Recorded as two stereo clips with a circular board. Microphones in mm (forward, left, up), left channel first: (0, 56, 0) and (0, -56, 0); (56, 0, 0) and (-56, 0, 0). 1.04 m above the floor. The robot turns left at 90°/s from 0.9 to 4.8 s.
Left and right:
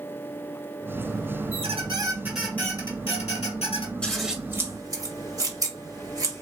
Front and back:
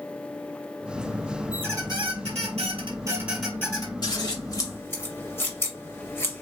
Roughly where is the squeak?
Right.